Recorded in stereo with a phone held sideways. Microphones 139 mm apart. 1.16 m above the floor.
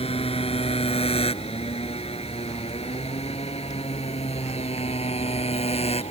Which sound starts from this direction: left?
A motorcycle, at 0.0 s.